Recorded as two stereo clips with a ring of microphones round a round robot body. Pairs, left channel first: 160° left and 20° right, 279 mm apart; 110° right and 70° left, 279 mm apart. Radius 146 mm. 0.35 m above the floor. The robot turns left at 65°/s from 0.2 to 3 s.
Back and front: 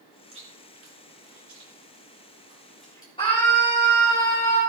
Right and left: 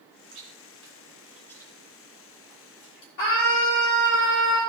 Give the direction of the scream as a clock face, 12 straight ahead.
4 o'clock.